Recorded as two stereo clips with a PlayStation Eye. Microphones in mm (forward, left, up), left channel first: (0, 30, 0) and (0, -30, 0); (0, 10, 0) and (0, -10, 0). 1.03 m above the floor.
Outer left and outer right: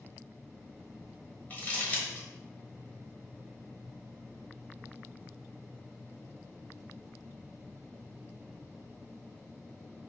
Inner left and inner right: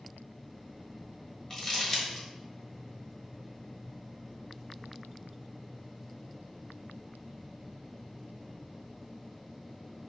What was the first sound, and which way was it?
Crumpling, 25° left (ahead or behind).